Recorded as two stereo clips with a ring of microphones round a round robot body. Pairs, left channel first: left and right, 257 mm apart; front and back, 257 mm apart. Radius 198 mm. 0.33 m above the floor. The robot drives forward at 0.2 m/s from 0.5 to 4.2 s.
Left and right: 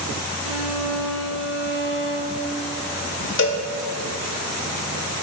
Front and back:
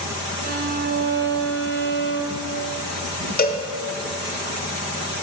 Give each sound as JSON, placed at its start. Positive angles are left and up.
{"t": 0.4, "sound": "a violin", "azimuth_deg": 120, "distance_m": 1.1}
{"t": 3.4, "sound": "a cowbell", "azimuth_deg": 55, "distance_m": 1.1}